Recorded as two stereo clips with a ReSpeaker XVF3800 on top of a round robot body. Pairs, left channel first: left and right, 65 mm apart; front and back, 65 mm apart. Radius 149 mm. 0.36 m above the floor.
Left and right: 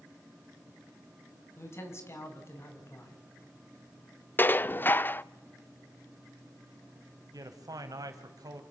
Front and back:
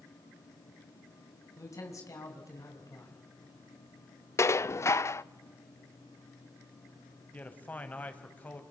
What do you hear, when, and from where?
1.6 s a man speaking: 40° left, 5 m
4.4 s dishes clattering: 35° left, 0.7 m
7.3 s a man speaking: 65° right, 3.5 m